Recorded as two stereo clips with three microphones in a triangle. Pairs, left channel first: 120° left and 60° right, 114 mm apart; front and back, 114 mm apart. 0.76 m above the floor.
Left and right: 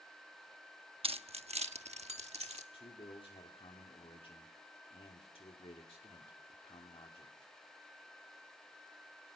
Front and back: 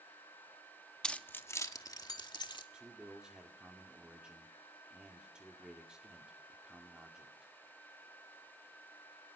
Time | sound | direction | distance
1.0 | keys jangling | 80° right | 0.8 m
2.7 | a man speaking | 100° left | 2 m